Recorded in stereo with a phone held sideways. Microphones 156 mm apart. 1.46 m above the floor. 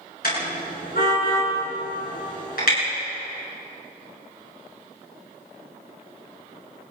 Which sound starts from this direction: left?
A car horn, at 0.2 s.